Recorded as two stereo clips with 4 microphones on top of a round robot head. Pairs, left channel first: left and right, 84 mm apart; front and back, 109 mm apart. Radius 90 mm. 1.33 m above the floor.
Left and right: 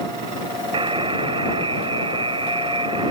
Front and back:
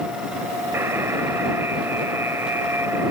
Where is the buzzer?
105° right.